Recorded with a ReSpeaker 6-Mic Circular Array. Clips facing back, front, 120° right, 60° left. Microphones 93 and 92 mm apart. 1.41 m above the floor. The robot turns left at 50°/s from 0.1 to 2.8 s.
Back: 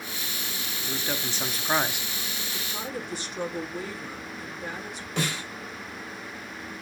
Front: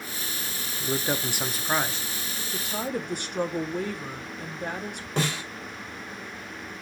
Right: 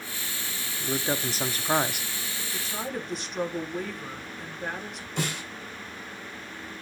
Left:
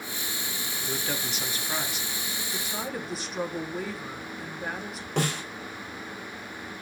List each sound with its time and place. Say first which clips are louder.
0.8 s a man speaking: front 5 dB, right 5 dB; 50° right, 0.5 m; by 2.1 s 115° right, 0.5 m
2.5 s a woman speaking: front 6 dB, right 1 dB; 15° right, 1.1 m; by 5.1 s 25° right, 1.1 m
5.2 s a snare drum: front 2 dB, left 4 dB; 55° left, 3.5 m